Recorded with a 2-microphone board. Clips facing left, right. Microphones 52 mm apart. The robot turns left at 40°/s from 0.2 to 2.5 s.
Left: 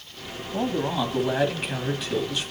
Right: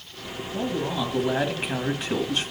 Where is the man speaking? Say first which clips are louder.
Left 2 dB; 20° left, 2.5 m; by 2.5 s 60° right, 2.5 m.